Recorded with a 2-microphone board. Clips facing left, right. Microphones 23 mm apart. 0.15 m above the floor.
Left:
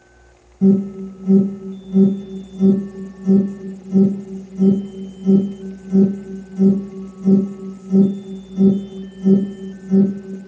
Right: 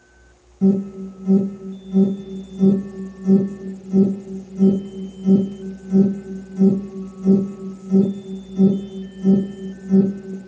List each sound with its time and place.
0.6 s an alarm: 20° right (ahead or behind), 1.6 m